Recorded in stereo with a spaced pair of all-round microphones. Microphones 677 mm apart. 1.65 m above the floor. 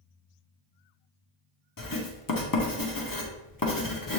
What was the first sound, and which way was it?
Writing, 30° left (ahead or behind).